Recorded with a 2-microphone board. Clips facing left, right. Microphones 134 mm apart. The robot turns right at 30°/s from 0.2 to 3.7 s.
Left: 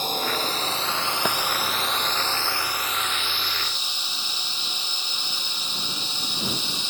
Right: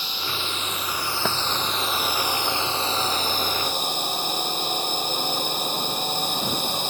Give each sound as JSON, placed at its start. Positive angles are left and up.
{"t": 0.0, "sound": "a drone", "azimuth_deg": 130}
{"t": 1.2, "sound": "a thud", "side_deg": 0}